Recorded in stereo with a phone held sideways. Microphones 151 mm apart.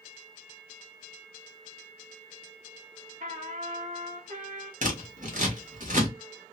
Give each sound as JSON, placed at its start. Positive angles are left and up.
{"t": 3.2, "sound": "a trumpet", "side_deg": -60, "distance_m": 1.7}
{"t": 4.8, "sound": "scissors", "side_deg": -60, "distance_m": 1.2}